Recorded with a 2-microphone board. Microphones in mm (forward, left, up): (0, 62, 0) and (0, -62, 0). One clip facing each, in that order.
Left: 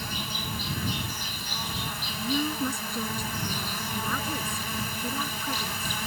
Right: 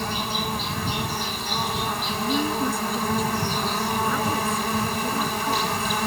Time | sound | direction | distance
0.0 | an insect | 70° right (ahead or behind) | ?
2.1 | a woman speaking | 5° right (ahead or behind) | ?